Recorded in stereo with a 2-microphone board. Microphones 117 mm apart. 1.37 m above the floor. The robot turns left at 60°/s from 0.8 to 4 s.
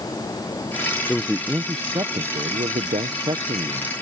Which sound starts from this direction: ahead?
A man speaking, at 1.1 s.